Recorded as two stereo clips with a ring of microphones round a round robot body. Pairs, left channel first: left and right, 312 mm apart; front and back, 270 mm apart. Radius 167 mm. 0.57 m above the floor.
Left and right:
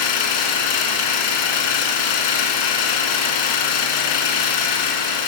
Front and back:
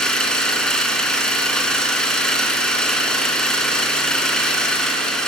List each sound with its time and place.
0.0 s an engine running: 90° left, 3.5 m